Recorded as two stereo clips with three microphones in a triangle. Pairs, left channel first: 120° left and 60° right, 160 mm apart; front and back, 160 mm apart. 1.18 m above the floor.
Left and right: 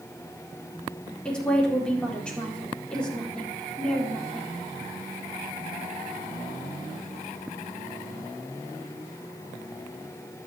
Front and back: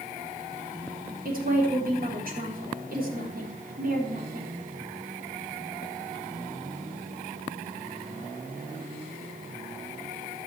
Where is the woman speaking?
155° right, 4 m.